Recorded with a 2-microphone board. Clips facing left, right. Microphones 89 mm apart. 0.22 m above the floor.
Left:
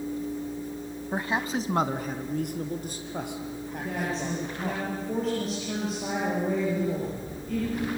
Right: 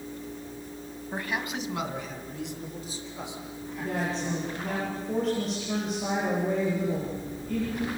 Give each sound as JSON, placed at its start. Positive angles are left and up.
{"t": 1.1, "sound": "a man speaking", "side_deg": 20, "distance_m": 1.2}
{"t": 3.8, "sound": "a woman speaking", "side_deg": 0, "distance_m": 7.0}